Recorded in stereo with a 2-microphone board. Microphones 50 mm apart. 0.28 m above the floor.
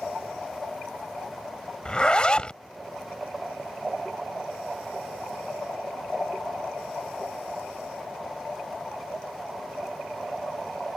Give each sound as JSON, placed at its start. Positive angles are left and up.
{"t": 1.9, "sound": "a zipper", "side_deg": 20}